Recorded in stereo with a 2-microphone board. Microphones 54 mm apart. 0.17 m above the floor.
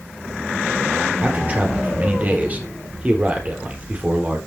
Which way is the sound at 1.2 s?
30° right (ahead or behind).